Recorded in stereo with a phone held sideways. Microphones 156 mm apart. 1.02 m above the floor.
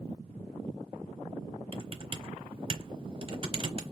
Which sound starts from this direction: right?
Typing on a keyboard, at 1.7 s.